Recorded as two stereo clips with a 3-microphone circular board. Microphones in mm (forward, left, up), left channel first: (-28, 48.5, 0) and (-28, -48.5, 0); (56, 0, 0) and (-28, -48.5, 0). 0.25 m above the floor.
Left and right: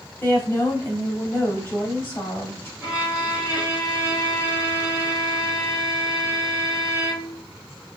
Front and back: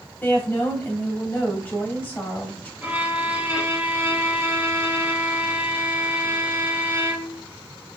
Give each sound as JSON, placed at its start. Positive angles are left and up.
{"t": 0.2, "sound": "a woman speaking", "azimuth_deg": 65, "distance_m": 1.0}
{"t": 2.8, "sound": "a violin", "azimuth_deg": -140, "distance_m": 1.3}